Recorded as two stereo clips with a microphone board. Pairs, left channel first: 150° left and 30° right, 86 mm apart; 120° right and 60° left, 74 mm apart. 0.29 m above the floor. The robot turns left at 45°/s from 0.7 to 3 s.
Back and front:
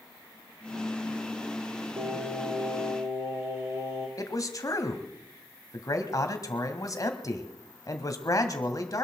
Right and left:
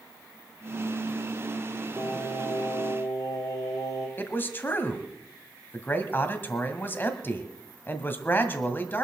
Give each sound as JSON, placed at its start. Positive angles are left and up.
{"t": 2.0, "sound": "singing", "azimuth_deg": -40, "distance_m": 4.0}
{"t": 4.2, "sound": "a man speaking", "azimuth_deg": -175, "distance_m": 1.7}